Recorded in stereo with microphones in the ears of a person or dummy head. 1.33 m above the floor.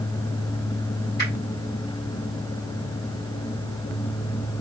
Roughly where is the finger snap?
Left.